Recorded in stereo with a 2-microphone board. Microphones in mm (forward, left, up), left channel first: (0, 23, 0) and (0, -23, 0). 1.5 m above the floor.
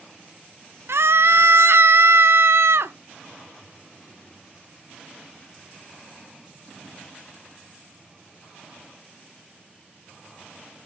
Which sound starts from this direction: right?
A scream, at 0.9 s.